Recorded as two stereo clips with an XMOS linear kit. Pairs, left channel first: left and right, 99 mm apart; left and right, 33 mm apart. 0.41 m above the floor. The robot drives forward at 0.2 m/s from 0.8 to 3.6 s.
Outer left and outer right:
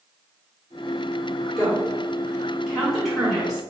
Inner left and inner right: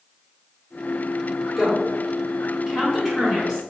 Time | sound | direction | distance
1.6 | a woman speaking | 5° right (ahead or behind) | 1.6 m